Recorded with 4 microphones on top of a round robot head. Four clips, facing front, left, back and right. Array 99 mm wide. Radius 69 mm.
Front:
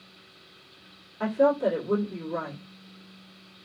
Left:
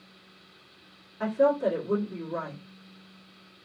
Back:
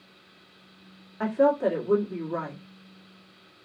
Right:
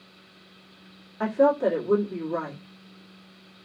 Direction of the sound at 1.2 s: 135° right.